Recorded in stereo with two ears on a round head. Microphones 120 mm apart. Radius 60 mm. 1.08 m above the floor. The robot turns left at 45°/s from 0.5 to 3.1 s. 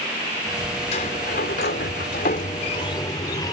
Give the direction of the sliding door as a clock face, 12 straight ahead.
8 o'clock.